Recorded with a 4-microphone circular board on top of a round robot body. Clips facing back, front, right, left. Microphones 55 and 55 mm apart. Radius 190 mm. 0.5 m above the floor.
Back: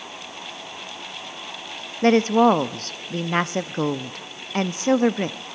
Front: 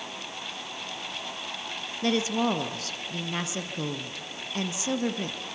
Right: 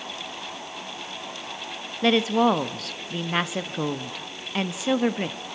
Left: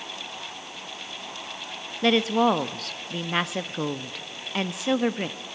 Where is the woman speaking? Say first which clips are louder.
Back 10 dB, right 1 dB; straight behind, 0.8 m.